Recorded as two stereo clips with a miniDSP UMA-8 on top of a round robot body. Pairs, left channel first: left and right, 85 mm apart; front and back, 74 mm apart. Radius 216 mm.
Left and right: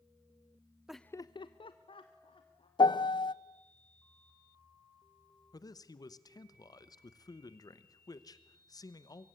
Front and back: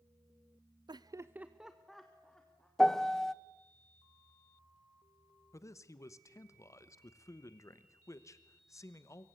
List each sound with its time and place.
0.9 s laughter: 170° right, 0.6 m; by 2.7 s 80° left, 2.5 m
2.8 s a piano: 85° left, 0.8 m
5.5 s a man speaking: 45° left, 1.2 m